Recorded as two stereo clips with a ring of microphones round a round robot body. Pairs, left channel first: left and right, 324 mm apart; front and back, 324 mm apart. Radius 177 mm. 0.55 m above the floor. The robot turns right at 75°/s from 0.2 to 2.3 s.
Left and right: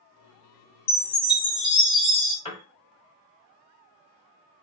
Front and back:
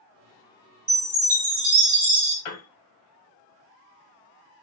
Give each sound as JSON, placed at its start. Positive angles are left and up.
{"t": 0.9, "sound": "a chime", "azimuth_deg": 90, "distance_m": 1.4}
{"t": 2.5, "sound": "a piano", "azimuth_deg": 15, "distance_m": 1.1}